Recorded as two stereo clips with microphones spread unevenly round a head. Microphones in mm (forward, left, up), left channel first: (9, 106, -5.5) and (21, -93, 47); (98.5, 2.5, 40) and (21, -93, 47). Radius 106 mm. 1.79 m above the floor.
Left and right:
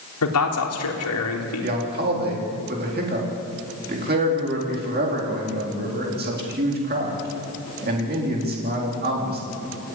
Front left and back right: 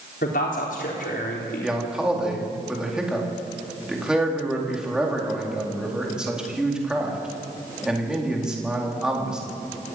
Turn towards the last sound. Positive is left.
turn(degrees=-45)